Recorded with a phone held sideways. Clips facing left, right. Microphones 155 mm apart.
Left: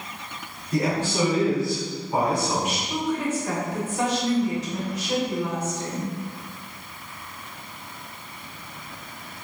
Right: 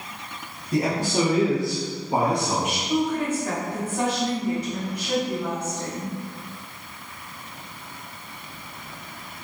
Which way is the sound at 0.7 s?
25° right (ahead or behind).